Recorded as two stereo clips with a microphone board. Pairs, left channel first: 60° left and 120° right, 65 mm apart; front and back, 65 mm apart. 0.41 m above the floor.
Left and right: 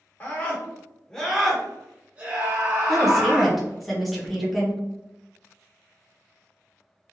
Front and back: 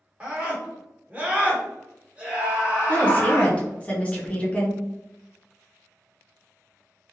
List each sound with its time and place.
0.2 s a scream: 115° left, 1.4 m; by 3.6 s 105° right, 1.3 m
2.9 s a woman speaking: 30° right, 0.8 m